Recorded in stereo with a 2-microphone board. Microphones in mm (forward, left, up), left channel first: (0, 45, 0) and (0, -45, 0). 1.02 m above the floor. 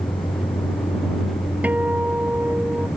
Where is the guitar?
15° right (ahead or behind).